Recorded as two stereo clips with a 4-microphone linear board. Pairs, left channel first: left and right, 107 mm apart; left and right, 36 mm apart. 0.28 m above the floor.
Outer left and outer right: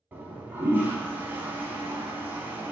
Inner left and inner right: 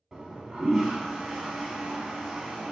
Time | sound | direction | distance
0.1 | a toilet flushing | 20° right (ahead or behind) | 0.8 m